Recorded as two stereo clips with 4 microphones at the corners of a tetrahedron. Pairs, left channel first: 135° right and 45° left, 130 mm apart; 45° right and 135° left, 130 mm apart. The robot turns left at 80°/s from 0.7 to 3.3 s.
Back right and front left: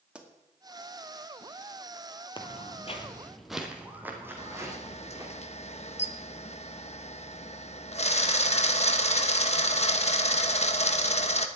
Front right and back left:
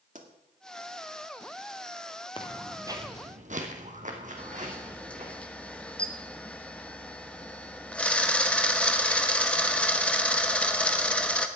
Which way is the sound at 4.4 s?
125° right.